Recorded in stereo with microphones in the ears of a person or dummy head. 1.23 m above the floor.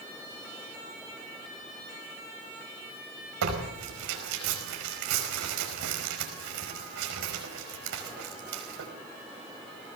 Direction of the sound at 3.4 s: 75° right (ahead or behind).